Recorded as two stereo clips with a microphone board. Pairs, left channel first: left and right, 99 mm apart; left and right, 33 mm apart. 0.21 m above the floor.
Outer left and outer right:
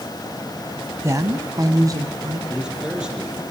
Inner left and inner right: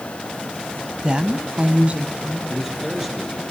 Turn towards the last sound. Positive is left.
turn(degrees=-10)  # may be behind; listen again after turning